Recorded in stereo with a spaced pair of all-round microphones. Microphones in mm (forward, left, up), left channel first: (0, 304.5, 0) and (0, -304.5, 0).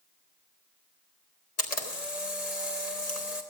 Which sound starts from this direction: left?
A camera shutter, at 1.6 s.